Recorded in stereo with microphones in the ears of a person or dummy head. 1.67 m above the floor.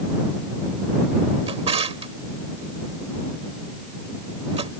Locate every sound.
1.5 s a drawer: 35° right (ahead or behind)